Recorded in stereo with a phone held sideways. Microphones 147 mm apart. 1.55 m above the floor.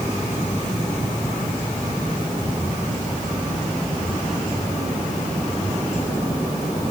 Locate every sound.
Only background noise.